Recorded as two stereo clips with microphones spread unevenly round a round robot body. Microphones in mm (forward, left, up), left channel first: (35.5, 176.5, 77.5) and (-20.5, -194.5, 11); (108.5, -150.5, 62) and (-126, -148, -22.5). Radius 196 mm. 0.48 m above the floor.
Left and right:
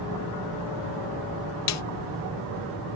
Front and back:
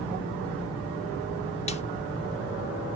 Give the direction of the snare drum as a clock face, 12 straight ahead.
9 o'clock.